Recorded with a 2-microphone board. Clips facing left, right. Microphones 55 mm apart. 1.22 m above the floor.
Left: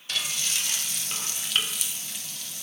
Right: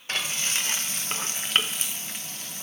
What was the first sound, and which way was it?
Frying, 40° right (ahead or behind).